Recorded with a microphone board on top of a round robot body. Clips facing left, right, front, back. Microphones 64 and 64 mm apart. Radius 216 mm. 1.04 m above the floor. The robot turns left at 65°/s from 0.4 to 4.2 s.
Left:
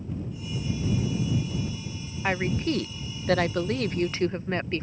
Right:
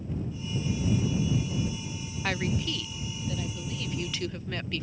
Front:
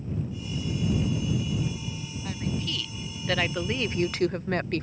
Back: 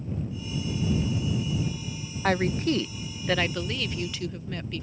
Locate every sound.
2.2 s a woman speaking: 165° left; by 4.8 s 35° left